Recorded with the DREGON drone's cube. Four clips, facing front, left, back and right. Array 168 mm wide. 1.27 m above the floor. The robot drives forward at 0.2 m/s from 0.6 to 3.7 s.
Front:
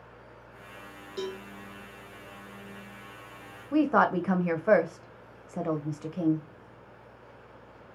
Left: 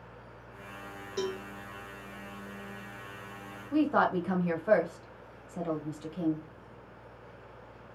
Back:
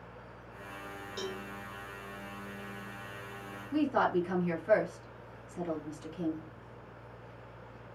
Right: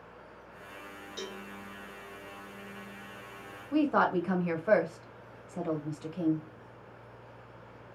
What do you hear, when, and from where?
1.2 s a cowbell: 70° left, 0.6 m
3.7 s a woman speaking: 5° right, 0.6 m